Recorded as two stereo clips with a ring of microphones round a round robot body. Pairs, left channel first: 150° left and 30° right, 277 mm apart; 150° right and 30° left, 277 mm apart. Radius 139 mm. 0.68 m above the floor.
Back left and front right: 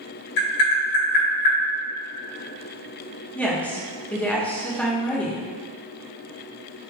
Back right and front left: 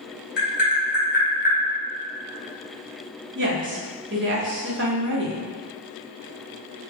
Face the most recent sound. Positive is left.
turn(degrees=65)